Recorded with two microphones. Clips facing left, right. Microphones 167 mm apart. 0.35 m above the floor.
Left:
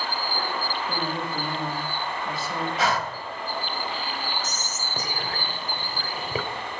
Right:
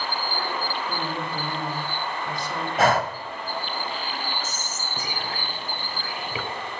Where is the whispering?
40° left (ahead or behind), 1.0 m.